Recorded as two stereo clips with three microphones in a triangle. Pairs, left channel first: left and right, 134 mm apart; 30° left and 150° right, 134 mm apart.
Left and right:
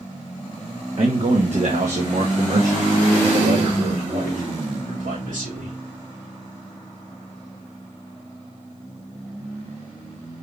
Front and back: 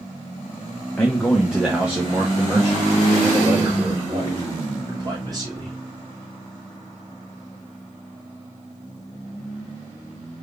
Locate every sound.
1.0 s a man speaking: 50° right, 0.9 m; by 5.8 s 95° right, 3 m